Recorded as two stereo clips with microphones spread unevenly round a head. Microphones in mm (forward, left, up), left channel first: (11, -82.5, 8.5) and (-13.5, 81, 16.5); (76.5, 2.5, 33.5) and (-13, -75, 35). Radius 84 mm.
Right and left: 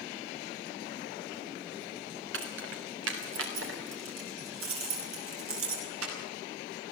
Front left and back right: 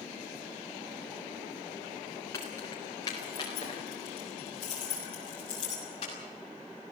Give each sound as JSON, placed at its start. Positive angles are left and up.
{"t": 2.3, "sound": "keys jangling", "azimuth_deg": 115, "distance_m": 3.5}